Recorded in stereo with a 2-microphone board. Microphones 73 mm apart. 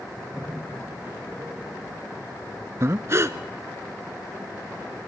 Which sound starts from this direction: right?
Breathing, at 2.8 s.